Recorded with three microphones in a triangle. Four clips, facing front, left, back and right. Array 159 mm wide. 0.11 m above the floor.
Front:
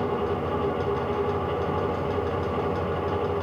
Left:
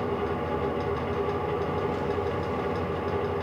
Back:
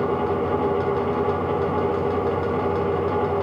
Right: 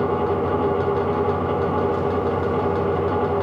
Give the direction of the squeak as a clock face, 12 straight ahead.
No squeak in this recording.